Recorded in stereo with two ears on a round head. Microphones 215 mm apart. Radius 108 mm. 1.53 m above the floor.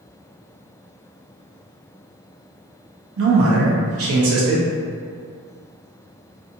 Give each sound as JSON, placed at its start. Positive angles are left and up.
{"t": 3.2, "sound": "a man speaking", "side_deg": -60, "distance_m": 0.9}